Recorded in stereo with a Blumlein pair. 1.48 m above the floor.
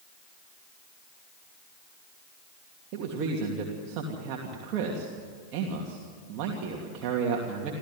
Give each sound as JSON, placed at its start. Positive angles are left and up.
{"t": 2.9, "sound": "a man speaking", "azimuth_deg": -40, "distance_m": 2.5}